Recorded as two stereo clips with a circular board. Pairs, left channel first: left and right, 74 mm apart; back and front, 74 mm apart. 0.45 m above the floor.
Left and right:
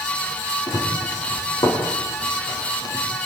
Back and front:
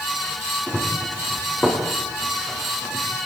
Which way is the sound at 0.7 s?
110° left.